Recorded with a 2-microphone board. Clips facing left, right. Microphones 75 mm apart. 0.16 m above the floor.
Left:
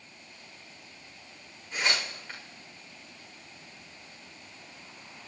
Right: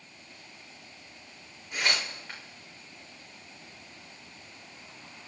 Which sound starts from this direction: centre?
Tearing paper, at 1.7 s.